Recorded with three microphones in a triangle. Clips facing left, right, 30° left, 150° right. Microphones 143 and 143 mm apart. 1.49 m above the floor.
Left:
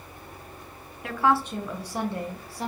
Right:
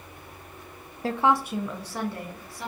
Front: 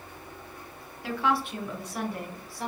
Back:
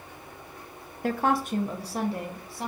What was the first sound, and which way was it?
A woman speaking, 135° right.